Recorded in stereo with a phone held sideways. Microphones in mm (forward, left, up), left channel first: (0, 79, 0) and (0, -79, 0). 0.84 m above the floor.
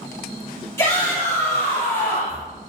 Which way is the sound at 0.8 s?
15° left (ahead or behind).